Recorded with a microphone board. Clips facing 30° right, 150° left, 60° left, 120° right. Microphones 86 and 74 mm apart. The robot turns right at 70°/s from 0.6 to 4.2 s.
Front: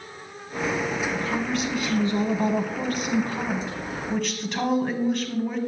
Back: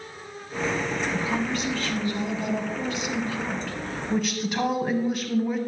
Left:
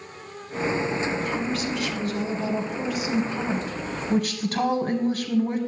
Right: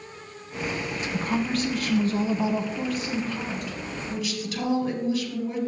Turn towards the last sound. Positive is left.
turn(degrees=65)